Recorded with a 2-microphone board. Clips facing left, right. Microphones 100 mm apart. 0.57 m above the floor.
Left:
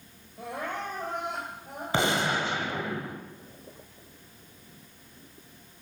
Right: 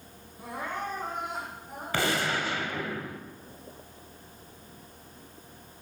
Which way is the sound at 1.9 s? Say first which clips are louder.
Left 2 dB; 20° left (ahead or behind).